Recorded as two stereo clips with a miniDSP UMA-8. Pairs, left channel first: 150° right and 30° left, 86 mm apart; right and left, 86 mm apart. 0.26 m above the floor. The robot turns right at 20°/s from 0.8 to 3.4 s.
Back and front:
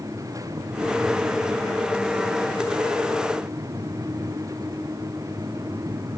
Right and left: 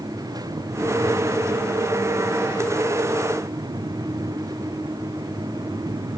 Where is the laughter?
I don't hear laughter.